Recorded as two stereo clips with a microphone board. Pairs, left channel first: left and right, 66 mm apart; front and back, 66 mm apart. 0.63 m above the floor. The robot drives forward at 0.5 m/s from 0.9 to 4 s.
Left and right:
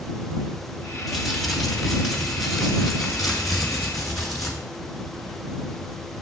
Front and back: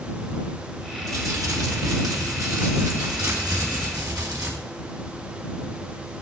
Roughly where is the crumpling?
Behind.